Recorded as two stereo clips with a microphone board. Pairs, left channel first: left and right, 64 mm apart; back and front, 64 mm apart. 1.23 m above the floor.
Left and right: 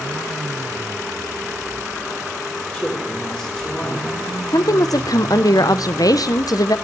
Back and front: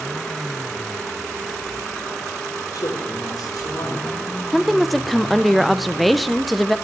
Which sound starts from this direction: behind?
A man speaking, at 2.7 s.